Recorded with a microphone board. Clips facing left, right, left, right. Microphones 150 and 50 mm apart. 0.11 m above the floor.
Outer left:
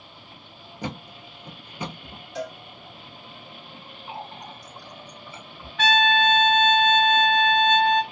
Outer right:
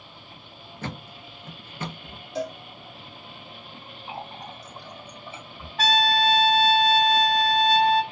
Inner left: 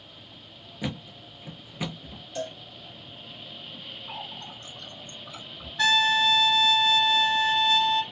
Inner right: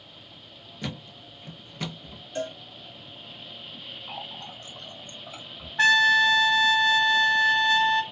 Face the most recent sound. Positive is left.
turn(degrees=-35)  # may be behind; listen again after turning